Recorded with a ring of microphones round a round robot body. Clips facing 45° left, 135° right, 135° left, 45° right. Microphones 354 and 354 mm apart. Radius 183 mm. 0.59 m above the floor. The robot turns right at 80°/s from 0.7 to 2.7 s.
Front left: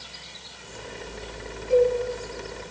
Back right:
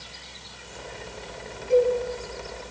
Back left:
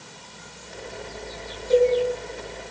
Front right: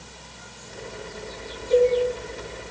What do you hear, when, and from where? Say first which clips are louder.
1.7 s a cowbell: front left 1 dB, even; 165° left, 3.5 m; by 1.9 s 175° left, 3.5 m